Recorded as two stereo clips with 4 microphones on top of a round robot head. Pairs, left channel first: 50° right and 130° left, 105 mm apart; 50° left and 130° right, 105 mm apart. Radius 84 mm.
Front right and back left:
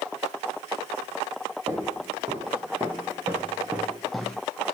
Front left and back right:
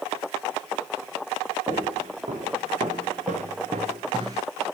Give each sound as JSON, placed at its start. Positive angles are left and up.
{"t": 1.7, "sound": "footsteps", "azimuth_deg": -160, "distance_m": 2.0}